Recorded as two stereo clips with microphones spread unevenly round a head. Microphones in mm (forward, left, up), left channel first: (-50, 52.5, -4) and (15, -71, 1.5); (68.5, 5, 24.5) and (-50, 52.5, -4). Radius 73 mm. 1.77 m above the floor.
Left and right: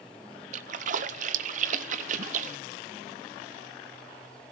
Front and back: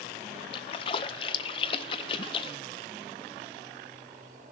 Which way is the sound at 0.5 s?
55° right.